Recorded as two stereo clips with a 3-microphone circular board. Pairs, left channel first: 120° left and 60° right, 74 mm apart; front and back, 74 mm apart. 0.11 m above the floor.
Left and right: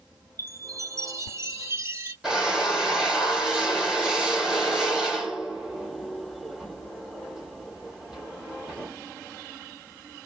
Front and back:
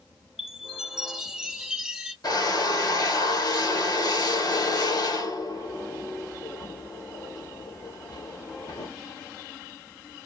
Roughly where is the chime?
Right.